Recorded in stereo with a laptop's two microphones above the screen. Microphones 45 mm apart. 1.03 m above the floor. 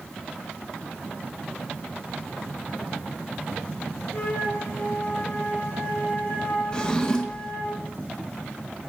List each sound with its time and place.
4.1 s a flute: 50° left (ahead or behind), 1.6 m
6.7 s a drawer: 20° left (ahead or behind), 0.8 m